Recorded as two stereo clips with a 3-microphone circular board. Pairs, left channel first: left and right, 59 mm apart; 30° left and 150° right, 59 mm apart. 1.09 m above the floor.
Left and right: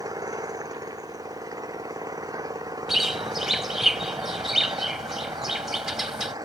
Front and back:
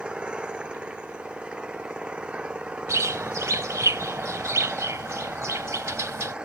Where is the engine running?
75° right.